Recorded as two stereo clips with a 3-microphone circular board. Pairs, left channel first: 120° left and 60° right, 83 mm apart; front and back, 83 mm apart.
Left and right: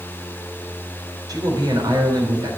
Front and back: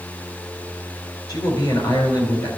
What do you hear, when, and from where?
1.3 s a man speaking: 25° right, 3 m